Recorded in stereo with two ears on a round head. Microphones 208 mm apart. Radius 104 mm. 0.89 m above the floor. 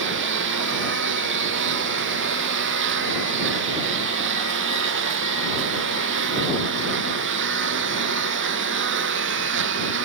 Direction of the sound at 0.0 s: 55° right (ahead or behind).